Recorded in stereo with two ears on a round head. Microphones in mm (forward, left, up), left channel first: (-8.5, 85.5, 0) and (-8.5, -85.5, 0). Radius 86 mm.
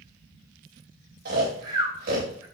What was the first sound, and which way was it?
Snoring, 50° right (ahead or behind).